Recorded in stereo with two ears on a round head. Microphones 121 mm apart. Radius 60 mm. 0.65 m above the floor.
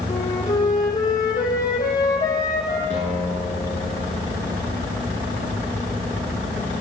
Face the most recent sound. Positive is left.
turn(degrees=50)  # may be behind; listen again after turning